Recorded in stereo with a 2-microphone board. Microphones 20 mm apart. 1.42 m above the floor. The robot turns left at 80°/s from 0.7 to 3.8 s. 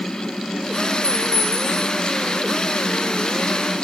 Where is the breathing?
No breathing in this recording.